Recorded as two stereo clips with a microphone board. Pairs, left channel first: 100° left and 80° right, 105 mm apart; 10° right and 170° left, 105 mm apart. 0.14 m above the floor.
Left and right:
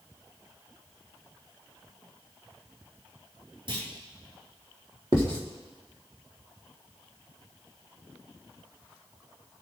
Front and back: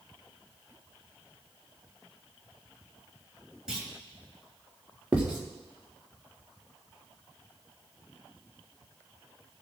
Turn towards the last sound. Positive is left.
turn(degrees=-115)